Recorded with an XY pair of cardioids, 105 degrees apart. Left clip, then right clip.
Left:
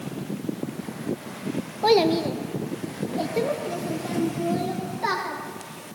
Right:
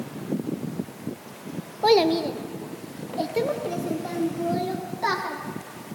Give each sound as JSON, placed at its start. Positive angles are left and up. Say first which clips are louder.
{"t": 1.8, "sound": "a child speaking", "louder": "even", "azimuth_deg": -5, "distance_m": 0.7}